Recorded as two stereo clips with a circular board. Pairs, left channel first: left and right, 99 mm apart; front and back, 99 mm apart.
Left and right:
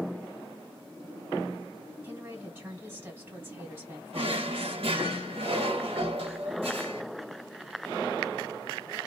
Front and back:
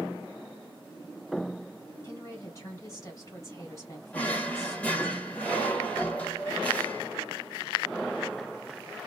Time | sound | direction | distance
2.0 | a woman speaking | 35° right | 1.5 m
4.1 | a drawer | 75° right | 0.8 m